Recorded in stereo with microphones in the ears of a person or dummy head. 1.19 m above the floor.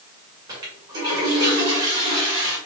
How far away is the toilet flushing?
About 1.6 m.